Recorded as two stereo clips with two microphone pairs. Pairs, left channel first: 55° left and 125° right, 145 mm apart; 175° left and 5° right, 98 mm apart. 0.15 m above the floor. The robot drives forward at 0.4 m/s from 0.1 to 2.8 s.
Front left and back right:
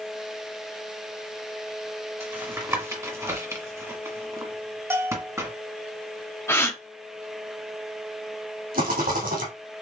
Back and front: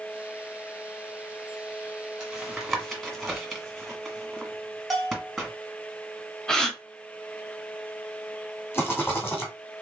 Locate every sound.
2.2 s tapping: 80° right, 1.6 m; by 5.5 s 100° right, 1.6 m
4.9 s a bell: 90° right, 0.9 m
6.5 s a gasp: 100° left, 0.8 m
8.7 s a rattle: 120° right, 2 m